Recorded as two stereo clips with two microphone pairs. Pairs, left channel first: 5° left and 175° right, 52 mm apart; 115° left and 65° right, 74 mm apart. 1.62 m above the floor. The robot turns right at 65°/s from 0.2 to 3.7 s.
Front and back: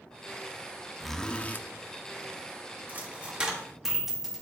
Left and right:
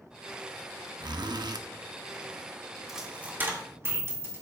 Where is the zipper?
80° right, 0.7 m; by 1.6 s 40° right, 0.7 m.